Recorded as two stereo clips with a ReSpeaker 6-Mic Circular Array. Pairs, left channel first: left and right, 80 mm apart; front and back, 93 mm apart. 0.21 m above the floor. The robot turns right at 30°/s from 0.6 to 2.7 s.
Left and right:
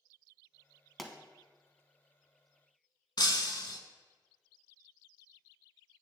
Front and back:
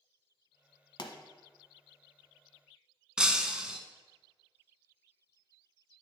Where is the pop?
Straight ahead, 0.8 m; by 1.1 s 5° left, 0.8 m.